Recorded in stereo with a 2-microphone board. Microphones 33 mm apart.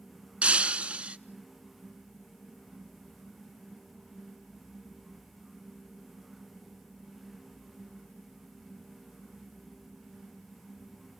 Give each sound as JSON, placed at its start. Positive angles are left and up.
{"t": 0.4, "sound": "breaking glass", "side_deg": -40, "distance_m": 0.8}